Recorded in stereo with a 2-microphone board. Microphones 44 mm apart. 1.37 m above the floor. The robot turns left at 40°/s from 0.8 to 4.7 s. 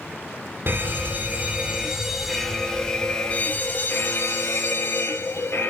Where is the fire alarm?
115° right, 2.5 m; by 5.7 s 90° left, 2.5 m.